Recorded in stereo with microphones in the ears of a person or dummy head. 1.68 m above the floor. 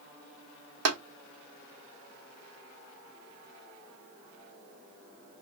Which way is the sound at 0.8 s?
80° right.